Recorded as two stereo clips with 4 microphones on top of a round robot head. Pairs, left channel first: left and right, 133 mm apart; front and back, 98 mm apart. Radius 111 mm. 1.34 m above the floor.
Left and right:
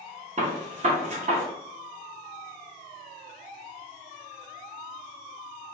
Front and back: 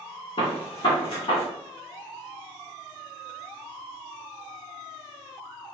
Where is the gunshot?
50° right, 1.0 m.